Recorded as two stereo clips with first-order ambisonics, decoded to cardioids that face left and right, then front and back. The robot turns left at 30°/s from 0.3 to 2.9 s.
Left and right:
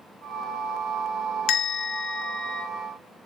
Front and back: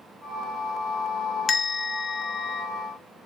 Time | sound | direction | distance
1.5 | a bell | 70° left | 0.5 m